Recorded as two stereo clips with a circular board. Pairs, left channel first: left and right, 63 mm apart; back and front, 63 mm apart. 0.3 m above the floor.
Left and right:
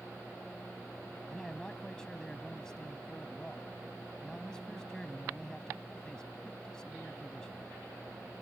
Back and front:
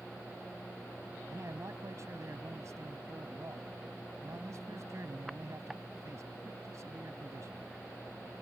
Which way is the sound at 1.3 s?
15° left.